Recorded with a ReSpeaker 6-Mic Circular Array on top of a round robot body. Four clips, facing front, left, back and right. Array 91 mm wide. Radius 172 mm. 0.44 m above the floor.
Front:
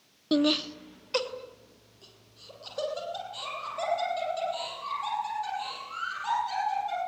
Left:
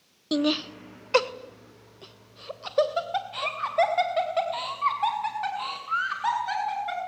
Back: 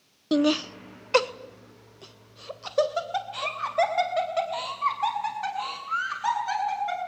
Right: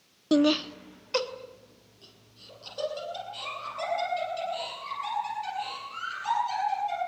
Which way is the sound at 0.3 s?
115° right.